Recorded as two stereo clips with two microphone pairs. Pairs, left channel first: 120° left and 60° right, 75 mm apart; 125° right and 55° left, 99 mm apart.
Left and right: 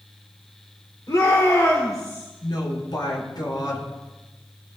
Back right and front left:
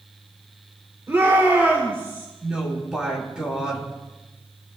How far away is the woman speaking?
About 8.5 m.